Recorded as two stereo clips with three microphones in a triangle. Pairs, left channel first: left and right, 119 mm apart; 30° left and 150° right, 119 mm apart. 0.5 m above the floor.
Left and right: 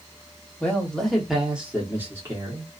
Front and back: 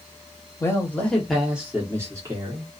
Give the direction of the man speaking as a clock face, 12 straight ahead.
11 o'clock.